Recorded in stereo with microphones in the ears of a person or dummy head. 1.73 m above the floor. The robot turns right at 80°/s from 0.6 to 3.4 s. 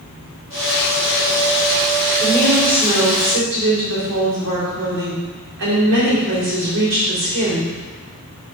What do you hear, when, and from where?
2.2 s a woman speaking: 150° left, 4 m; by 7.7 s 115° right, 4 m